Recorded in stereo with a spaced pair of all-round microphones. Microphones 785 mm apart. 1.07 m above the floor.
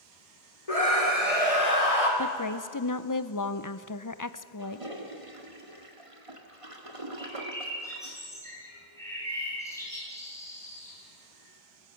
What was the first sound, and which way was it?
A scream, 45° left (ahead or behind).